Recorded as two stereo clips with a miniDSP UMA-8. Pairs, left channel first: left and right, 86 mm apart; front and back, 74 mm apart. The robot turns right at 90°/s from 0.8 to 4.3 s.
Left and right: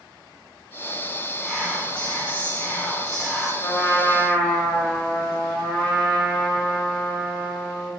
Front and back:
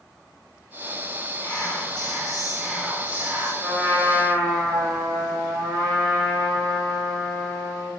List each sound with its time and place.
1.4 s whispering: 10° left, 0.7 m; by 3.5 s 160° right, 0.7 m
3.6 s a trumpet: 95° left, 0.9 m; by 7.9 s 155° left, 0.9 m